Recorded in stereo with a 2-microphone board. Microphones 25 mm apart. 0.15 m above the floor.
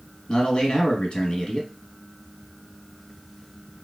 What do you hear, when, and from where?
0.3 s a man speaking: 40° left (ahead or behind), 1.5 m